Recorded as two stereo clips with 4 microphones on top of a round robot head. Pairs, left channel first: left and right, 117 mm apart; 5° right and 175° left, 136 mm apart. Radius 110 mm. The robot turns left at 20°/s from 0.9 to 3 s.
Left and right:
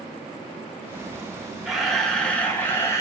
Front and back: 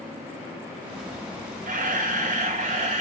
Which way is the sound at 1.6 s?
Straight behind.